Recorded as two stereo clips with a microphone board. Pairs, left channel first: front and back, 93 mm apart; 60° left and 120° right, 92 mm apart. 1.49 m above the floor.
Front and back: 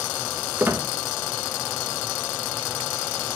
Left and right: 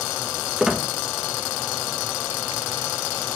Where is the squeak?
165° left, 0.7 m.